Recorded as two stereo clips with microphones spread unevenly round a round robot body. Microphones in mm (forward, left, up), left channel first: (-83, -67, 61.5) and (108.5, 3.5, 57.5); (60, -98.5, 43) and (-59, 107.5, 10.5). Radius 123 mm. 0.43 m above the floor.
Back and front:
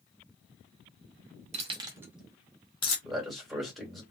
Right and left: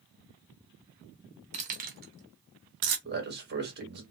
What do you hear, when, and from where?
1.5 s keys jangling: 70° left, 0.8 m; by 3.0 s 140° left, 0.8 m
3.0 s a man speaking: 110° left, 1.3 m